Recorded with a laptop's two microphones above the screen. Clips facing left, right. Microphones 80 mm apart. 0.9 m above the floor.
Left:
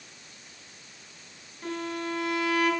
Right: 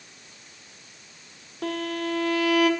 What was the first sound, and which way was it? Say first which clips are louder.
A violin: right 4 dB; 85° right.